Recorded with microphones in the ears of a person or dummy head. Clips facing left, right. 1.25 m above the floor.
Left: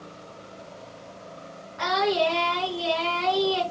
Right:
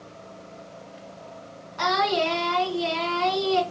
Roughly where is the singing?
Right.